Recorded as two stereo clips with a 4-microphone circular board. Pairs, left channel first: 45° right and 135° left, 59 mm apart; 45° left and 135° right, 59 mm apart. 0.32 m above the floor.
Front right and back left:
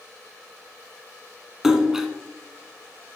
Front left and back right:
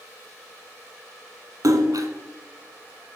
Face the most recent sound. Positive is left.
turn(degrees=-145)